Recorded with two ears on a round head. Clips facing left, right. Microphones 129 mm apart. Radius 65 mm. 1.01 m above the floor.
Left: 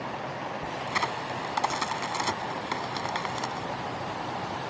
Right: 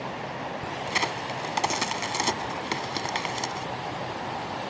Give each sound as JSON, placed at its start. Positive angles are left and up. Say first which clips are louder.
{"t": 0.9, "sound": "a crack", "louder": "right 1 dB", "side_deg": -25}